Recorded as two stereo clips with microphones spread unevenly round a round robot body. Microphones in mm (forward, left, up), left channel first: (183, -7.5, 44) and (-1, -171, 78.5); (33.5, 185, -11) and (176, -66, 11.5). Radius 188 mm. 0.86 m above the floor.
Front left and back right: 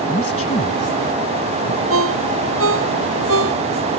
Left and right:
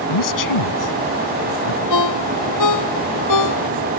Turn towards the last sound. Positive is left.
turn(degrees=165)